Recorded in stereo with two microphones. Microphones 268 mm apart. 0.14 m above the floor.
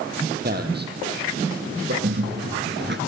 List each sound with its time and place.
0.4 s a man speaking: 35° right (ahead or behind), 4.5 m; by 1.9 s 45° right (ahead or behind), 6.5 m
2.0 s a bird: 40° right (ahead or behind), 1.2 m